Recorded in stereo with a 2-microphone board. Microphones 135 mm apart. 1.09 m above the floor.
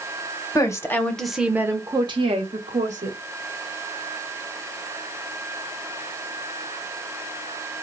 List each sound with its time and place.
0.6 s a woman speaking: 25° left (ahead or behind), 0.9 m; by 3.2 s 65° right (ahead or behind), 1.1 m